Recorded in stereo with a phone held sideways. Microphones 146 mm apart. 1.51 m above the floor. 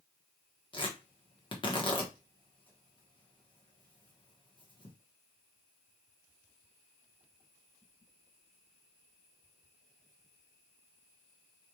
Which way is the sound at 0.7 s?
35° left (ahead or behind).